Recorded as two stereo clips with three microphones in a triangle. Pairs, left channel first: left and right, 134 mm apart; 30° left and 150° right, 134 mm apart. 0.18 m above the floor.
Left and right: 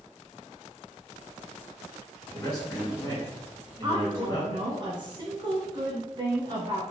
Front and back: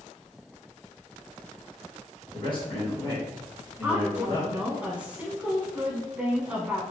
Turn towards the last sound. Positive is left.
turn(degrees=-75)